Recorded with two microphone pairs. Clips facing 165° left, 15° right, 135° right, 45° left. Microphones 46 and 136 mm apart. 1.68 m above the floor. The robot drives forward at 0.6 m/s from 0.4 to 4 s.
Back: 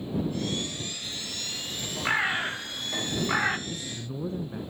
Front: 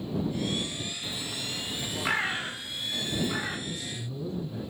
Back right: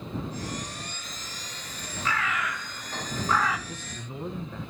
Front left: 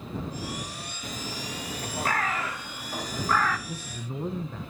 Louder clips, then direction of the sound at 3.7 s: Back 1 dB, front left 3 dB; 120° left.